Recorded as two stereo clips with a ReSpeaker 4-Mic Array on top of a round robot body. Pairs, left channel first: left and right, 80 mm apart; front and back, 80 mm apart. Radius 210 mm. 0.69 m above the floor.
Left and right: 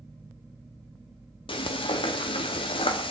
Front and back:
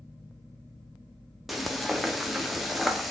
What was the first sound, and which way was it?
Frying, 90° left.